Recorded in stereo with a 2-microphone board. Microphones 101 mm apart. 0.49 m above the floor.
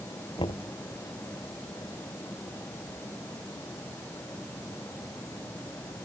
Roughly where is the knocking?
Left.